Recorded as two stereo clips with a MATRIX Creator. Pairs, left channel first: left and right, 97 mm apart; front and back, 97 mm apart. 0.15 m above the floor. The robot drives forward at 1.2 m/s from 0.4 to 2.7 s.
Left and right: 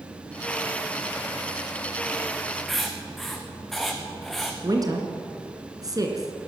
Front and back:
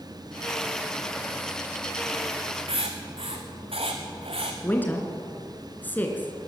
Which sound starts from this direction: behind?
Writing, at 2.7 s.